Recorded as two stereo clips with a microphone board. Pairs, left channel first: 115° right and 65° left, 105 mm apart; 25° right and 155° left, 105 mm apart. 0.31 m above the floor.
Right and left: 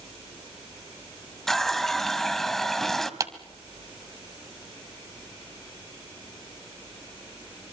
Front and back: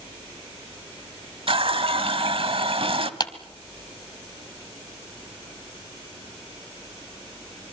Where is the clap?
20° left, 1.4 m.